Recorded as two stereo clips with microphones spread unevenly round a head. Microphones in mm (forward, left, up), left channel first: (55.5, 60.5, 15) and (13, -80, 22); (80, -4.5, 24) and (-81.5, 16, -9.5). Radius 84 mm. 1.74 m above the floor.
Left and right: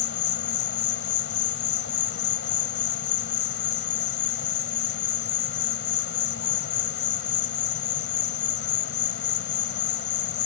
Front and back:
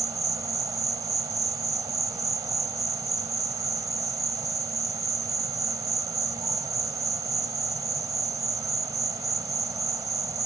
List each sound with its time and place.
0.0 s an insect: 100° left